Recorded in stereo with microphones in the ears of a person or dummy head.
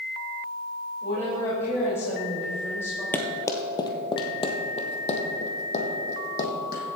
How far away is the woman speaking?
About 4 m.